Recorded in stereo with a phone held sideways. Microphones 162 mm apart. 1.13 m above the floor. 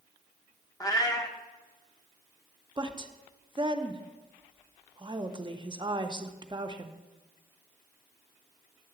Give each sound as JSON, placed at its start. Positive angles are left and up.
{"t": 0.8, "sound": "a cat meowing", "side_deg": 25, "distance_m": 0.7}
{"t": 2.8, "sound": "a woman speaking", "side_deg": -30, "distance_m": 0.6}